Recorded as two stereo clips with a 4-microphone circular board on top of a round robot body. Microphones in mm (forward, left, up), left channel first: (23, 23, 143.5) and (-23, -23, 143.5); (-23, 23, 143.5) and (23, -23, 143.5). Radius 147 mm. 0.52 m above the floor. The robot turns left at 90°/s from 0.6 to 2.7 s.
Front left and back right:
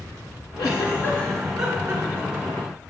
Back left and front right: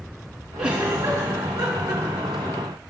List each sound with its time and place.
0.6 s a giggle: 35° left, 3 m; by 2.6 s 145° right, 3 m